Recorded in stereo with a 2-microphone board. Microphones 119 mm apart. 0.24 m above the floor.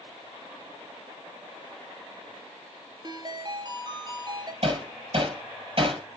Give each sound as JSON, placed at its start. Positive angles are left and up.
{"t": 3.0, "sound": "a ringtone", "side_deg": -40, "distance_m": 1.9}
{"t": 4.6, "sound": "hammering", "side_deg": -50, "distance_m": 6.0}